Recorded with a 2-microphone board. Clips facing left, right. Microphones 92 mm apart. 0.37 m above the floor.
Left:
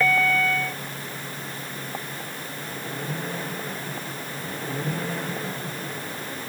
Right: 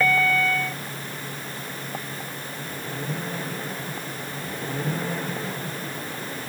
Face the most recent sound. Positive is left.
No sound to turn to.